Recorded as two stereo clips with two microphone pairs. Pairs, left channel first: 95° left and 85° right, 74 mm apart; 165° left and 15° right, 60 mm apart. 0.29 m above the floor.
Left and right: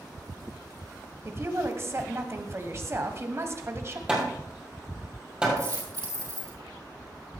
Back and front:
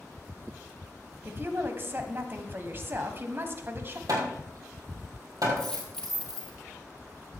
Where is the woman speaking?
50° right, 1.3 m.